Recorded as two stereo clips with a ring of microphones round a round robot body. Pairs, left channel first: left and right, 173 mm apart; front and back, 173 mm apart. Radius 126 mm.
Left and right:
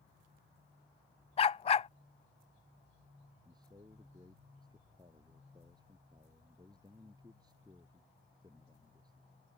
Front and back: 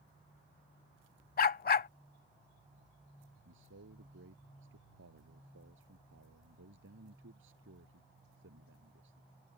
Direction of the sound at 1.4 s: 35° left.